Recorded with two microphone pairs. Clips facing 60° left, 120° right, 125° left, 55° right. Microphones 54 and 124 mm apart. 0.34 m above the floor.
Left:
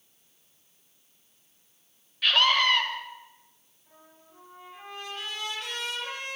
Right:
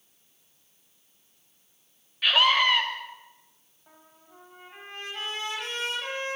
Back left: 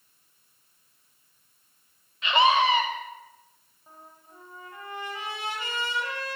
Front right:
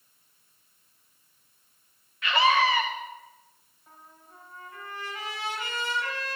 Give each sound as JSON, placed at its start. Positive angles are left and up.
{"t": 2.2, "sound": "a scream", "azimuth_deg": 175, "distance_m": 1.4}
{"t": 3.9, "sound": "a trumpet", "azimuth_deg": -165, "distance_m": 5.5}